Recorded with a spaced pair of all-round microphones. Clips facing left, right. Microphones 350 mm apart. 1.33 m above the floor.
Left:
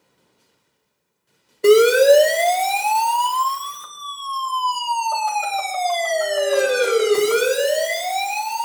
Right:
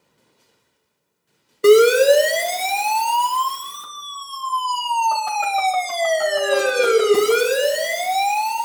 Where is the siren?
10° right (ahead or behind), 2 m; by 8.7 s 65° right (ahead or behind), 3.5 m.